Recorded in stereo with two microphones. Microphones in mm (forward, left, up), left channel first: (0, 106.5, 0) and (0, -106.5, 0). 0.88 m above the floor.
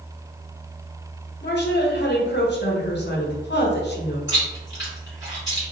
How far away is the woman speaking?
About 0.8 m.